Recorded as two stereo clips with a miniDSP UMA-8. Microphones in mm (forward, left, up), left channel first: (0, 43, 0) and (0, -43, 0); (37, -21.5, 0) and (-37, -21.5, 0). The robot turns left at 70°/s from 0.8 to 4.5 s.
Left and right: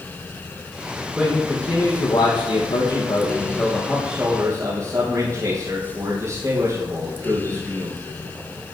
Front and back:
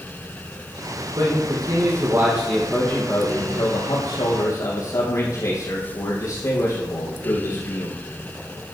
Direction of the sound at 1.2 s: 165° right.